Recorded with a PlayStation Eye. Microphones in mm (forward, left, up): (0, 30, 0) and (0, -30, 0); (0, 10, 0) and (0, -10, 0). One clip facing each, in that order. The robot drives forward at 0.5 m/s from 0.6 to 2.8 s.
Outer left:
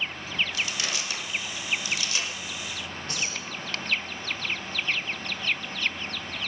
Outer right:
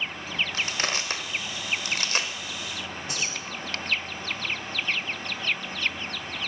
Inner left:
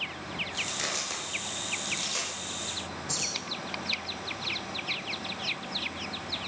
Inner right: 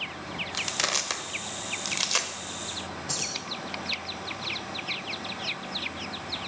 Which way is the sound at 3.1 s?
20° right (ahead or behind).